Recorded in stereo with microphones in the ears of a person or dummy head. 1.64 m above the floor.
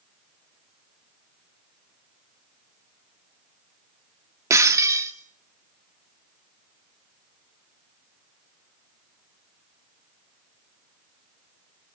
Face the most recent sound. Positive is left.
turn(degrees=-15)  # may be behind; listen again after turning